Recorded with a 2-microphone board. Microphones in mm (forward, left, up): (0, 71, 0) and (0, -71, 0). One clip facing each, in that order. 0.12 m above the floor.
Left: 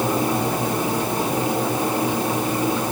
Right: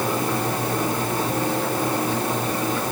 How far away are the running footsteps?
No running footsteps in this recording.